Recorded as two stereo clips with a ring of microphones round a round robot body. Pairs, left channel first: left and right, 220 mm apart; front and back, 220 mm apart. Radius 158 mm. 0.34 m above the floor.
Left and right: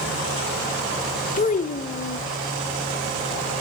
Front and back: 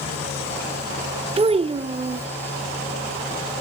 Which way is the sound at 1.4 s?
125° left.